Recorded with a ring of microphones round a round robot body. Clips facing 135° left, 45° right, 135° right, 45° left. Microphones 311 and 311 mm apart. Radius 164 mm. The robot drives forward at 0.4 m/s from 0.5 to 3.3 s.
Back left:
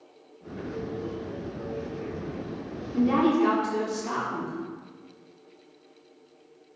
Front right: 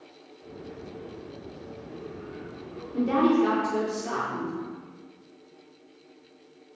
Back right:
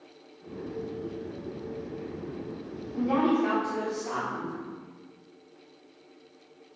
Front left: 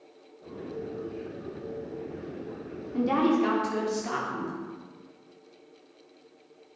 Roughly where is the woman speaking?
Ahead left.